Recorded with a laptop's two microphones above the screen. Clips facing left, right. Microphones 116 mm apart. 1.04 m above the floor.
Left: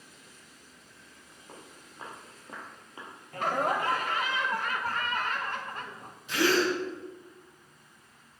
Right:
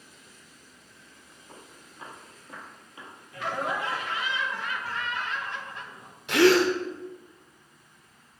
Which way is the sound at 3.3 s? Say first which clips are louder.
Left 2 dB; 50° left (ahead or behind).